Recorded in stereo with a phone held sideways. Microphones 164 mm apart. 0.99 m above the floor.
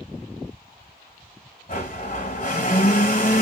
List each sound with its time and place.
1.7 s a blender: 50° left (ahead or behind), 1.5 m